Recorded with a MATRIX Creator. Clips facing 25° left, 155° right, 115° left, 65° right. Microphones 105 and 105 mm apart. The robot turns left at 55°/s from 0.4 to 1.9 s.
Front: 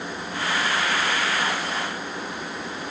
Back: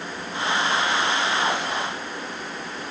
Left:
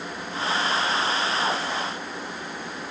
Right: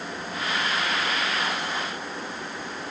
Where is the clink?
No clink in this recording.